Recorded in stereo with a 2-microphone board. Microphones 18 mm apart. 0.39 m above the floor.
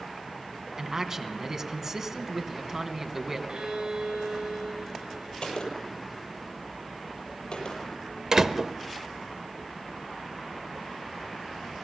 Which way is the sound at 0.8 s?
25° right (ahead or behind).